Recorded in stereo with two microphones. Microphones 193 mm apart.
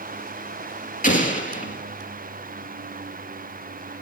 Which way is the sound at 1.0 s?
40° left (ahead or behind).